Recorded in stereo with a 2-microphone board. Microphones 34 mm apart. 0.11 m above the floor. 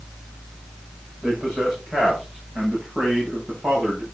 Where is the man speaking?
25° right (ahead or behind), 7 m.